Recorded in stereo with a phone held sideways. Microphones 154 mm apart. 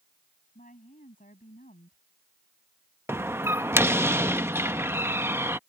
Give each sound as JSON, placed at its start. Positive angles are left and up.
{"t": 0.6, "sound": "a woman speaking", "side_deg": 60}
{"t": 3.1, "sound": "a door slam", "side_deg": -15}